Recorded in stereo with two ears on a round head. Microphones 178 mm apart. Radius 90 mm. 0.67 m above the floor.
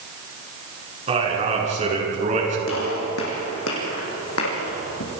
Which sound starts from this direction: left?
A gunshot, at 2.7 s.